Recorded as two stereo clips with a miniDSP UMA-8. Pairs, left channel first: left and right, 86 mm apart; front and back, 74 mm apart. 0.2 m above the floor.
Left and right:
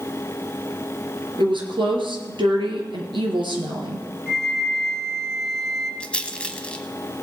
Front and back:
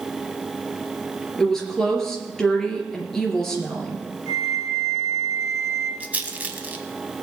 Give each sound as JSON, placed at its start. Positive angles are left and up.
{"t": 1.4, "sound": "a woman speaking", "azimuth_deg": -85, "distance_m": 3.0}
{"t": 4.3, "sound": "a flute", "azimuth_deg": 170, "distance_m": 2.0}
{"t": 6.0, "sound": "a rattle", "azimuth_deg": 150, "distance_m": 1.0}